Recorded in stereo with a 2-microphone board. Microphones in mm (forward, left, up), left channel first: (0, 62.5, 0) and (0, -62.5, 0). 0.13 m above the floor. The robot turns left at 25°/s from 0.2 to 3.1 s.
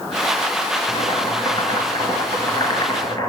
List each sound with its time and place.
0.9 s boiling: 110° left, 1.5 m; by 3.3 s 55° left, 1.5 m